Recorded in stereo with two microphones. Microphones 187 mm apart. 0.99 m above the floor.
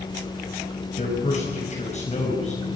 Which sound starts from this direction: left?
A man speaking, at 1.0 s.